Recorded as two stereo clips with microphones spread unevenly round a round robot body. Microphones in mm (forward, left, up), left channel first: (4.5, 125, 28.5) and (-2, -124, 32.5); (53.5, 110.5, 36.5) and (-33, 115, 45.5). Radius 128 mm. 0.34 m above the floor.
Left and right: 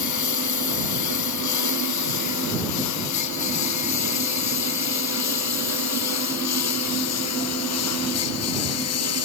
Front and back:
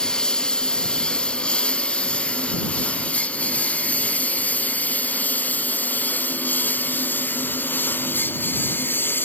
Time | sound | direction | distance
0.0 | a lawn mower | 80° left | ?